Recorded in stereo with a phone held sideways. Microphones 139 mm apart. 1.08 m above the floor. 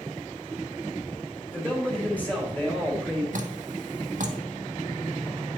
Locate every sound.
1.5 s a man speaking: 10° left (ahead or behind), 3 m
3.3 s dripping: 65° right (ahead or behind), 1.0 m